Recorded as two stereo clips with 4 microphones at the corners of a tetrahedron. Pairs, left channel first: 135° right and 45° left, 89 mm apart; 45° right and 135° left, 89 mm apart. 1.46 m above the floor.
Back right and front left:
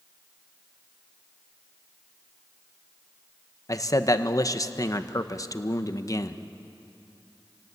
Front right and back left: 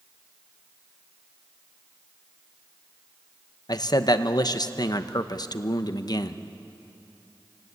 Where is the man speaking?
85° right, 1.0 m.